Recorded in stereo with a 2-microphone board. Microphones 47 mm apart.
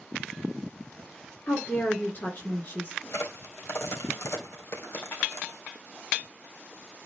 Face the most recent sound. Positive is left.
turn(degrees=60)  # may be behind; listen again after turning